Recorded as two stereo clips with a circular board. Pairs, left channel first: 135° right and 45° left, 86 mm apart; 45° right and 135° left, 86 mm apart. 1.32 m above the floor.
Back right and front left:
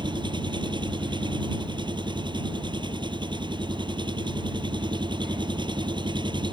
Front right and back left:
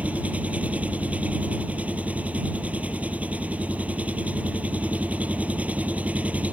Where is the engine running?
60° left.